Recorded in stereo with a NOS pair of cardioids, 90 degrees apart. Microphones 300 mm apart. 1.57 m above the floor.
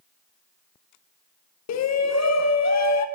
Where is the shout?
60° left, 1.2 m.